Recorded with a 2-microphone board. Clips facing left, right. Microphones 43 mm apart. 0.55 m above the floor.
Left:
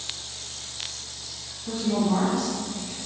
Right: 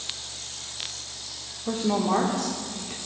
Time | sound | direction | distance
1.7 | a woman speaking | 50° right (ahead or behind) | 0.9 m